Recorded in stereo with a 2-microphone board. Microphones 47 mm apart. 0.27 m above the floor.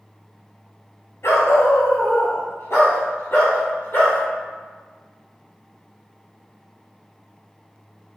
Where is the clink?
No clink in this recording.